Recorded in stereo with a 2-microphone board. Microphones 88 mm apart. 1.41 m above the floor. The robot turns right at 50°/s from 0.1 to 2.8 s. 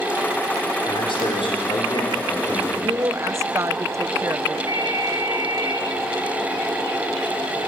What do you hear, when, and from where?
0.9 s a man speaking: 65° left, 5 m; by 2.7 s 160° left, 5 m
2.8 s a woman speaking: 35° right (ahead or behind), 0.9 m
4.7 s a ringtone: 40° right (ahead or behind), 4.5 m